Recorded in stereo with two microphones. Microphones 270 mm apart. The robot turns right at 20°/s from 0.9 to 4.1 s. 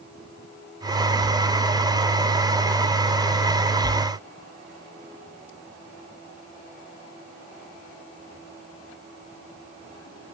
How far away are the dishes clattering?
No dishes clattering in this recording.